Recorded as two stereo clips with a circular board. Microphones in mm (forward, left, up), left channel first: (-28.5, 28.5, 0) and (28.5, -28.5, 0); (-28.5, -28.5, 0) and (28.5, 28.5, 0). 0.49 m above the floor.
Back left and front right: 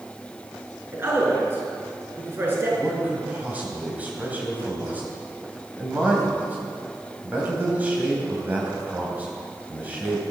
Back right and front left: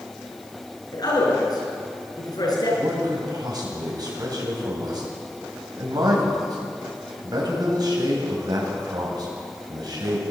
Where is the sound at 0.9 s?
105° right, 5.5 m.